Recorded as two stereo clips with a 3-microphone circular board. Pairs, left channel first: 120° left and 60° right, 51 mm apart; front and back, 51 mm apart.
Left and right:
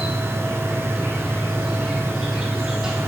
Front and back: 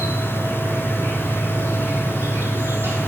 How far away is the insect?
About 4 m.